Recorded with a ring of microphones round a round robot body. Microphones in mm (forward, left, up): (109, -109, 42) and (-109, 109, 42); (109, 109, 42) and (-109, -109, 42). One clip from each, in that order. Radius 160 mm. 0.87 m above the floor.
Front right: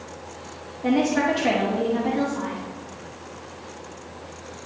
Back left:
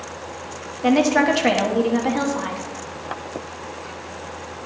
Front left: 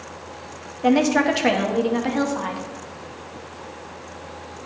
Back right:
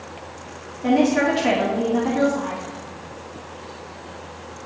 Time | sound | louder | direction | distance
0.8 | a woman speaking | back left 5 dB, even | 90° left | 1.6 m